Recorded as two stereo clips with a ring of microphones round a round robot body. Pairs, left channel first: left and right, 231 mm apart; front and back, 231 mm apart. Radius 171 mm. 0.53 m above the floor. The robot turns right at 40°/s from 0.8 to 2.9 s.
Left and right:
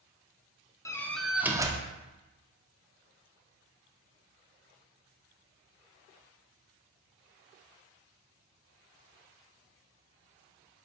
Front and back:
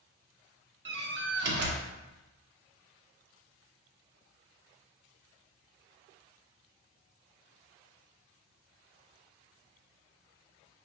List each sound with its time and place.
0.8 s a door slam: 165° left, 0.6 m; by 1.9 s 155° right, 0.6 m